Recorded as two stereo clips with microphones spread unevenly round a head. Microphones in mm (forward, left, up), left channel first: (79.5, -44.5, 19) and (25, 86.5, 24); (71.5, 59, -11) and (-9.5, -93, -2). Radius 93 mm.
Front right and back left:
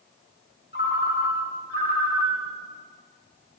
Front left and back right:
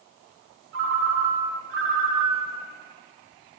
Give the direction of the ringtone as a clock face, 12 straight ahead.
4 o'clock.